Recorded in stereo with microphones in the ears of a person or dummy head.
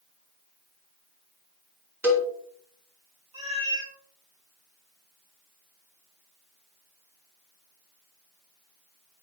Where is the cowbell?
5° right (ahead or behind), 0.8 m.